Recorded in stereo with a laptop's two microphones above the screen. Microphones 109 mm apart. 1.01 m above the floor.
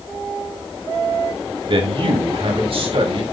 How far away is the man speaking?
About 1.8 m.